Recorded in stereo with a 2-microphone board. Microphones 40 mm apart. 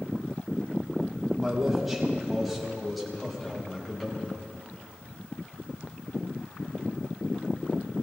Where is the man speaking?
10° right (ahead or behind), 8 m; by 4.5 s 10° left (ahead or behind), 6.5 m.